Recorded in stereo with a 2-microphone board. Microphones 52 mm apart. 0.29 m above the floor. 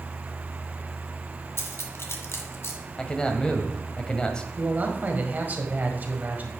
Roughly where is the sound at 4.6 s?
Right.